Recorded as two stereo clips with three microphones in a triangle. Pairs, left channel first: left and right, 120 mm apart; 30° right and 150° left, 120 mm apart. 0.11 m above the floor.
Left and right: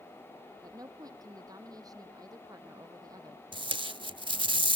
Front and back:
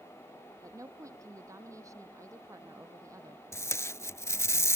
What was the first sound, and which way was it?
A woman speaking, 150° right.